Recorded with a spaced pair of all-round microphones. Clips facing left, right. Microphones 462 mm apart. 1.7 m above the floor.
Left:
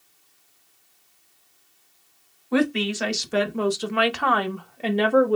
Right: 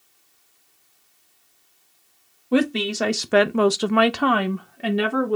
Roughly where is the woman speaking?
Right.